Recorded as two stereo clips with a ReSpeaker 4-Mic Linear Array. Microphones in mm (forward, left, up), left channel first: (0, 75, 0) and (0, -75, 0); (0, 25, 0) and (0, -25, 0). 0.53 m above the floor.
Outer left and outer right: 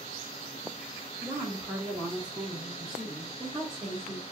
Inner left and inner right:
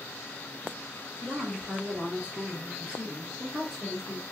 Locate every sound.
1.2 s a woman speaking: 15° right (ahead or behind), 1.3 m; by 4.2 s centre (ahead or behind), 1.7 m